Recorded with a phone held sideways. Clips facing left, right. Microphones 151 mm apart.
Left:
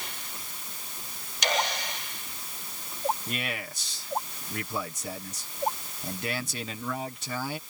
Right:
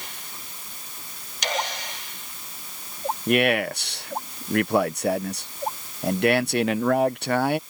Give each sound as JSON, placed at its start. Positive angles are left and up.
{"t": 3.3, "sound": "a man speaking", "side_deg": -70}